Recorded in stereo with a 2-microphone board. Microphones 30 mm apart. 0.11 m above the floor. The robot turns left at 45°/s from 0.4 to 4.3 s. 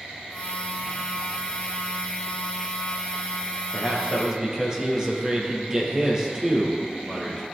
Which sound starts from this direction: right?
A man speaking, at 3.7 s.